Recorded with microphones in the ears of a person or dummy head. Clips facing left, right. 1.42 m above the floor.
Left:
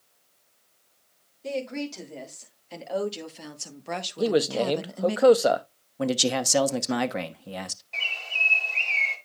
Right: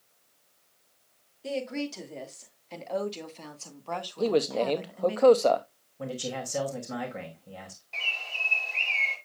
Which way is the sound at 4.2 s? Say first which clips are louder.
Left 2 dB; 10° left (ahead or behind).